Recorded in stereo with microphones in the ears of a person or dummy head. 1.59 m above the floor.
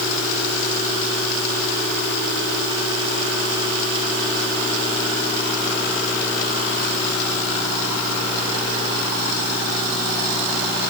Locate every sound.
Only background noise.